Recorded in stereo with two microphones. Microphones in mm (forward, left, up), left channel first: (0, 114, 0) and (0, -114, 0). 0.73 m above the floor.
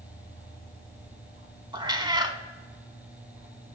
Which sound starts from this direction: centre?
A cat meowing, at 1.7 s.